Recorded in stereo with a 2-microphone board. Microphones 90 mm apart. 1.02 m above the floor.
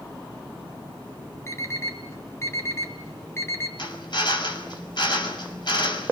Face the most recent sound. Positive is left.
turn(degrees=60)  # may be behind; listen again after turning